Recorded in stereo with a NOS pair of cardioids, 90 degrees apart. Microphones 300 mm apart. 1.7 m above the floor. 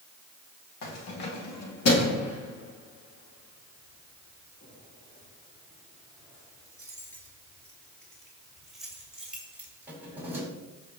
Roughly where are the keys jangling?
Left.